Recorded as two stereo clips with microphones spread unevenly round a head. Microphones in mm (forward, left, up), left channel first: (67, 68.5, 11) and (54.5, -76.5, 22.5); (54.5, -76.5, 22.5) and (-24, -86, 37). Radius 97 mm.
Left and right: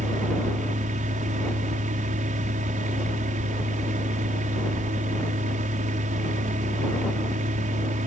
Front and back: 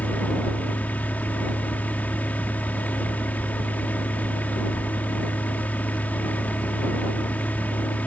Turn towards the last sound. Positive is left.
turn(degrees=-65)